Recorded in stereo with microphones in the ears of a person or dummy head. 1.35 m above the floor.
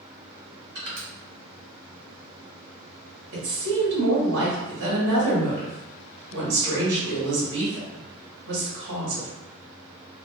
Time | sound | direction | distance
0.8 | crushing | 65° right (ahead or behind) | 1.3 m
3.3 | a woman speaking | 75° right (ahead or behind) | 1.3 m